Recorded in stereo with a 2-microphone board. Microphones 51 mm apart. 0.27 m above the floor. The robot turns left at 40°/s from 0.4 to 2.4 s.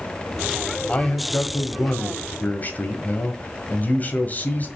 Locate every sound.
0.9 s a man speaking: 130° left, 1.7 m; by 4.7 s 70° left, 1.7 m